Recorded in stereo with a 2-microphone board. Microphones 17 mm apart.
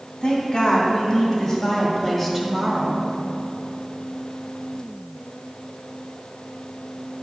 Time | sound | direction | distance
0.2 | a woman speaking | 45° left (ahead or behind) | 1.9 m